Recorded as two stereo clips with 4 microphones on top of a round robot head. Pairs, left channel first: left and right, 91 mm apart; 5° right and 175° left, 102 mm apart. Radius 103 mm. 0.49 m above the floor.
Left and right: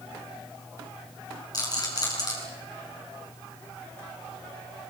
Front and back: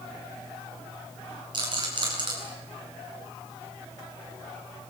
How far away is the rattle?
About 8 m.